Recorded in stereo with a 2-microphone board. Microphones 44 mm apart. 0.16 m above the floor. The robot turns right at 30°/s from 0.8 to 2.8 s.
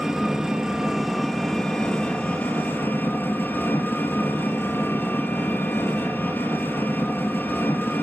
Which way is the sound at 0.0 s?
10° right.